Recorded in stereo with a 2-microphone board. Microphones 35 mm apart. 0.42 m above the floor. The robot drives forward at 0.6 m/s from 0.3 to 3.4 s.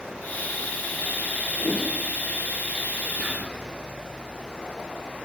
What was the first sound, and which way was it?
A whoosh, 15° left (ahead or behind).